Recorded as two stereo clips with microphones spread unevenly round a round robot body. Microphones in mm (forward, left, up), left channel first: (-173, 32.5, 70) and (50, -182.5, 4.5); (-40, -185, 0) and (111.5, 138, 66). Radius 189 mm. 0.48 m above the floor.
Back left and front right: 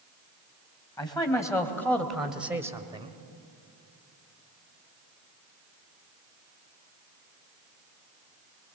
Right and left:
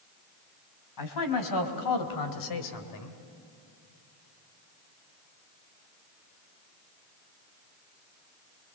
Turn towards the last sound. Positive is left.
turn(degrees=-105)